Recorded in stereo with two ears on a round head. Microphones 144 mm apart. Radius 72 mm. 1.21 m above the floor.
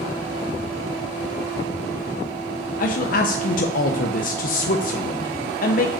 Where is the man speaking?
55° left (ahead or behind), 0.7 m.